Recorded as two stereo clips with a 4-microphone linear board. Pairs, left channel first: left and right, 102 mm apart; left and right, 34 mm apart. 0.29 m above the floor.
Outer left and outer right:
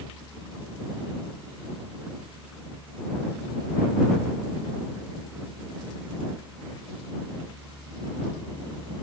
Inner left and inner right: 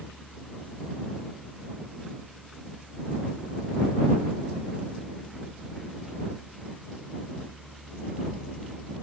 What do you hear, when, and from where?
Only background noise.